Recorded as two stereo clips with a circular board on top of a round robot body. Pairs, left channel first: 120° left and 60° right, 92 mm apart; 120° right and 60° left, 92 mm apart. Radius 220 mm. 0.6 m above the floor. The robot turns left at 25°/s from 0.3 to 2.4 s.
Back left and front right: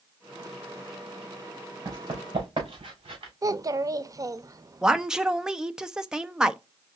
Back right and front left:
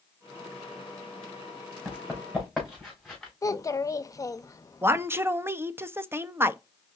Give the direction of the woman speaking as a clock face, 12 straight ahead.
11 o'clock.